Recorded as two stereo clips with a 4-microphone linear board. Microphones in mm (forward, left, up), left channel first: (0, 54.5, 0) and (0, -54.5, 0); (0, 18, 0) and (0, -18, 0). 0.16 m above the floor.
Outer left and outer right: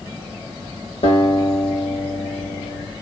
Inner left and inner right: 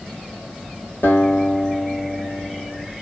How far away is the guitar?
About 4.5 m.